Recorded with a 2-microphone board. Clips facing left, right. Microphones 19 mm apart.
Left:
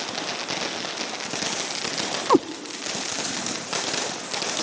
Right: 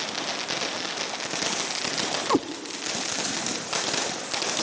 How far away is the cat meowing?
About 0.7 m.